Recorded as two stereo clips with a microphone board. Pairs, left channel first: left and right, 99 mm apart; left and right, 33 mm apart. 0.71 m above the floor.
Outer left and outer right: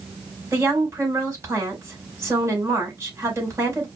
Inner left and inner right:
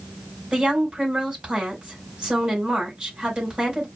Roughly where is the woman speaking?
Right.